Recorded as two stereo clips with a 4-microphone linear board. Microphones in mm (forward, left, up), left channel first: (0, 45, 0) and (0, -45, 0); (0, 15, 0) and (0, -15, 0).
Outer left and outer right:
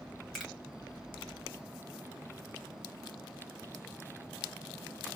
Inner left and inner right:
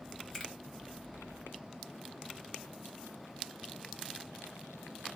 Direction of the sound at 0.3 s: Centre (ahead or behind).